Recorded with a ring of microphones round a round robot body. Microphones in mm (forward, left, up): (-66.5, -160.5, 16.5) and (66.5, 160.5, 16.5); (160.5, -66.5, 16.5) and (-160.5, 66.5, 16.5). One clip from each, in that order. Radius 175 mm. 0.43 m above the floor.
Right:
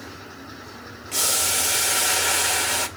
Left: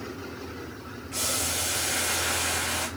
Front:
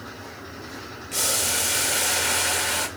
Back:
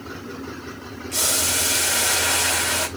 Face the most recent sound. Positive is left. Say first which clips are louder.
# right 6 dB, back 2 dB
turn(degrees=-110)